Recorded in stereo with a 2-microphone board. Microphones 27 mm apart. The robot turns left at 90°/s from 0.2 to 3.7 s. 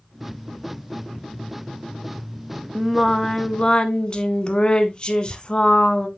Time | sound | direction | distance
2.8 | singing | 160° right | 0.8 m